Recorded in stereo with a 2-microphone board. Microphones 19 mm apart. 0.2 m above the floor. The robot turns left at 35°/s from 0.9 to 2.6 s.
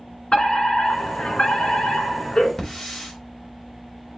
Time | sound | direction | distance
0.3 | a fire alarm | 105° left | 3.5 m
2.6 | a hiss | 35° left (ahead or behind) | 3.5 m